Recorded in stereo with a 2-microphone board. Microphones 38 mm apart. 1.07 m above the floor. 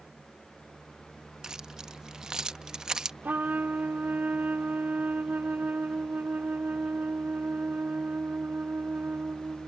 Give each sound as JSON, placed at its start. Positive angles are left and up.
{"t": 1.4, "sound": "keys jangling", "side_deg": -20}
{"t": 3.2, "sound": "a trumpet", "side_deg": -50}